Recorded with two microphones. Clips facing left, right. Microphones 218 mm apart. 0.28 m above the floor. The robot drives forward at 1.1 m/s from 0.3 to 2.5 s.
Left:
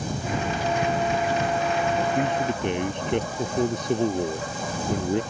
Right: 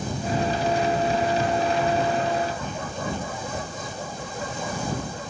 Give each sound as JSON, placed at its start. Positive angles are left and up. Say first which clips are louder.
{"t": 2.1, "sound": "a man speaking", "louder": "left 1 dB", "side_deg": 80}